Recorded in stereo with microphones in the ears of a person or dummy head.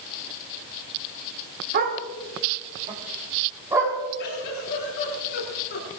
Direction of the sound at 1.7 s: 50° right (ahead or behind).